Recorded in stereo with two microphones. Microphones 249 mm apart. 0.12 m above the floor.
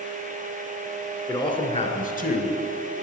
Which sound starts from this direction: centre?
A man speaking, at 1.3 s.